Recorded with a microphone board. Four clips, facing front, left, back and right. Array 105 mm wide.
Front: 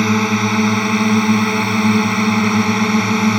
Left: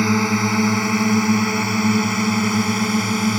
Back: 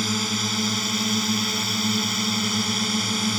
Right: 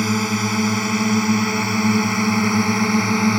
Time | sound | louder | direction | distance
0.0 | a drone | left 2 dB, front 12 dB | 15° left | ?